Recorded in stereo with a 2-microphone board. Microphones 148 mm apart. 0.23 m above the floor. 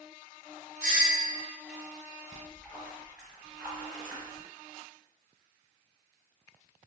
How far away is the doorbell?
About 1.8 m.